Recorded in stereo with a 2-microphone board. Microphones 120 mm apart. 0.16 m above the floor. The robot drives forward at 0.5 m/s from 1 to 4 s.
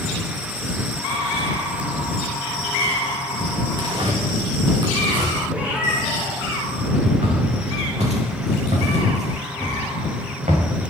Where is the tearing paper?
40° right (ahead or behind), 3.5 m.